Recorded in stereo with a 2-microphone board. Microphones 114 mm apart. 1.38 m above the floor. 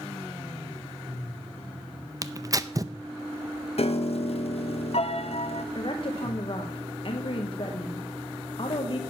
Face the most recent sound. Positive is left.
turn(degrees=50)  # may be behind; listen again after turning